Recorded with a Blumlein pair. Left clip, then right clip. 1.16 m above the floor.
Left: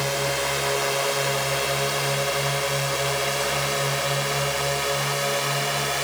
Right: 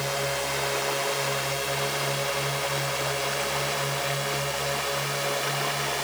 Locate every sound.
0.0 s a drone: 10° left; by 6.0 s 15° left